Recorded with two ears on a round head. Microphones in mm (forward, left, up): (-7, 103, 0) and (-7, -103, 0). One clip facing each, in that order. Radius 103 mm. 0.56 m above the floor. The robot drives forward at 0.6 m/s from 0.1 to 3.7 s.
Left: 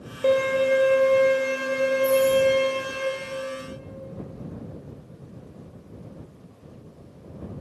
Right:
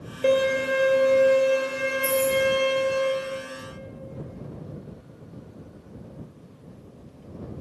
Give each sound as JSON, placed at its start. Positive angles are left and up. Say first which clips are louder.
{"t": 0.2, "sound": "a violin", "louder": "left 1 dB", "side_deg": -20, "distance_m": 1.0}
{"t": 2.0, "sound": "keys jangling", "louder": "left 3 dB", "side_deg": -60, "distance_m": 1.3}